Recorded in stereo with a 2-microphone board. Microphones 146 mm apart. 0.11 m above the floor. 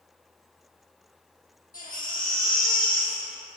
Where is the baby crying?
70° left (ahead or behind), 2.5 m.